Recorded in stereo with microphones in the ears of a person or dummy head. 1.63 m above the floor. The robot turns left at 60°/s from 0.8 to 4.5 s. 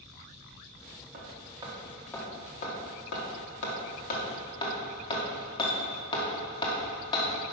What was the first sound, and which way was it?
Hammering, 45° right (ahead or behind).